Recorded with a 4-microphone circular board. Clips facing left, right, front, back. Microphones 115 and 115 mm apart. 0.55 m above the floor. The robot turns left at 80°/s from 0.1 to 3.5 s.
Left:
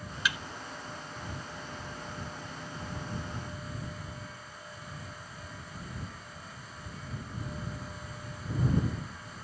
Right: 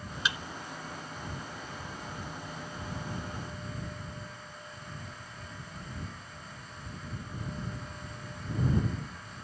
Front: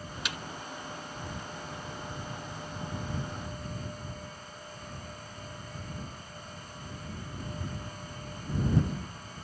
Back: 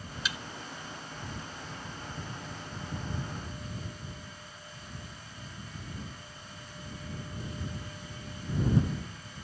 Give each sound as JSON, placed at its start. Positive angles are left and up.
{"t": 0.2, "sound": "a thud", "azimuth_deg": -25}